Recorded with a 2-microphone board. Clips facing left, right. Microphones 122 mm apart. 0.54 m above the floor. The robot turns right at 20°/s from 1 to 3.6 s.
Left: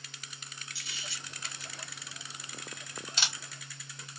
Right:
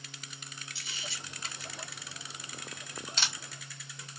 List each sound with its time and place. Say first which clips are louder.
0.8 s a camera shutter: right 2 dB; 20° right (ahead or behind), 1.8 m; by 3.3 s 15° left (ahead or behind), 1.8 m